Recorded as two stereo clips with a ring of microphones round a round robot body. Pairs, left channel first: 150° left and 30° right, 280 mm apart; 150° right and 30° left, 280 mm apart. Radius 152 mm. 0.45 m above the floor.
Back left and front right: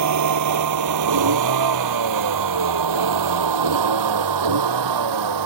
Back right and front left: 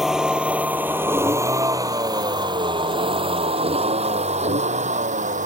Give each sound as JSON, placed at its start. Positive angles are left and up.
{"t": 0.0, "sound": "a vehicle", "azimuth_deg": -60}